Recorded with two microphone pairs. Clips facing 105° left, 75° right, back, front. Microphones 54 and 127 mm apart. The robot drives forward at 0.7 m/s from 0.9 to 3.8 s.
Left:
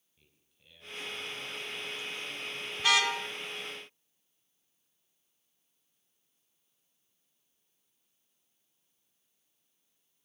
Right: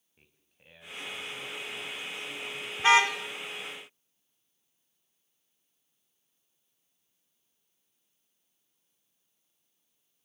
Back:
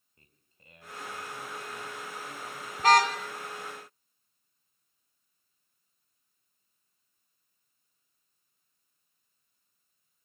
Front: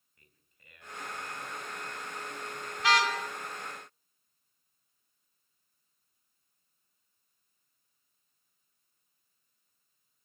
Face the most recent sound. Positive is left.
turn(degrees=-145)